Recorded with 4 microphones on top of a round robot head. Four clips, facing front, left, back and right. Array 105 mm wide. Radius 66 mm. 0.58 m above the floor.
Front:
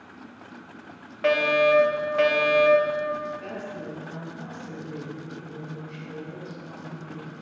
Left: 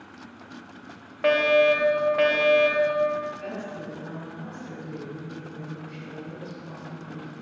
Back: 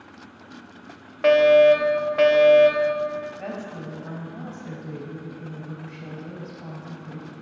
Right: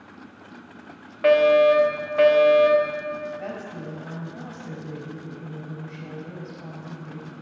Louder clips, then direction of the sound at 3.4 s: Right 1 dB, back 2 dB; 145° right.